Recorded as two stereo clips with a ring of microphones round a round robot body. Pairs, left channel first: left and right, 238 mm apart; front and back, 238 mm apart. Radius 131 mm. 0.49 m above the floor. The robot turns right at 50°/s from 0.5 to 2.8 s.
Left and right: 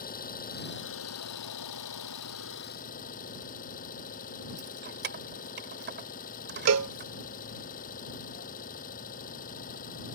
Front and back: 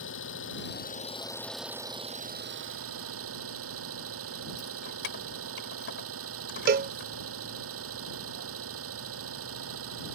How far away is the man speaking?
I don't hear a man speaking.